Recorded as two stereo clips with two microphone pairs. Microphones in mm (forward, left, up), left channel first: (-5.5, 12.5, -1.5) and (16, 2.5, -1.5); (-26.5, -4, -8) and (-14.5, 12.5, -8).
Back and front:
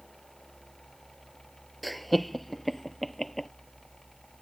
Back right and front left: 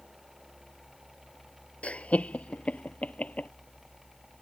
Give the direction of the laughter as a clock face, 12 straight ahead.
4 o'clock.